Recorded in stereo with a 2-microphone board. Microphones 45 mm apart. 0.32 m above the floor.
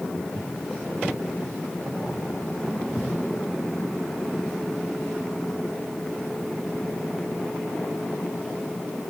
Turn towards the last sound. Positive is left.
turn(degrees=35)  # may be behind; listen again after turning